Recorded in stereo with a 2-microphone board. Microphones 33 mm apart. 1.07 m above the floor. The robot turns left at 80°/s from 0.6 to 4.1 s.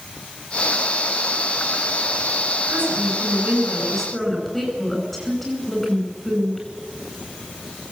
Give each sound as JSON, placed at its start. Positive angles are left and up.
{"t": 2.7, "sound": "a woman speaking", "azimuth_deg": -75, "distance_m": 9.5}